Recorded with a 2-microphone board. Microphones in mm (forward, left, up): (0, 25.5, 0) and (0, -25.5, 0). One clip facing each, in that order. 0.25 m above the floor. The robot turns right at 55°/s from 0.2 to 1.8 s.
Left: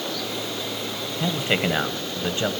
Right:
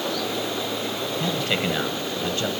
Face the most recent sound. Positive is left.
turn(degrees=25)  # may be behind; listen again after turning